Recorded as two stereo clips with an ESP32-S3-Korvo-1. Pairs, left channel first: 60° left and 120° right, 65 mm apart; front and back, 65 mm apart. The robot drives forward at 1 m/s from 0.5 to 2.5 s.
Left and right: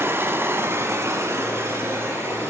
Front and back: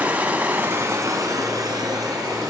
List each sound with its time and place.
0.0 s running water: 135° right, 0.8 m; by 2.5 s 170° right, 2.5 m